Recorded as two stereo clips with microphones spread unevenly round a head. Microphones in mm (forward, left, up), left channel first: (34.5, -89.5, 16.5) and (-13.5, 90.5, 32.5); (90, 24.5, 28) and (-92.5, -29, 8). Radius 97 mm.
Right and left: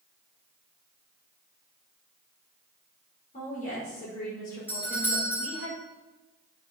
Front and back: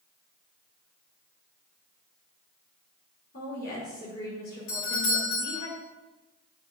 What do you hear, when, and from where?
3.3 s a woman speaking: 25° right, 5.5 m
4.7 s a doorbell: 5° left, 4 m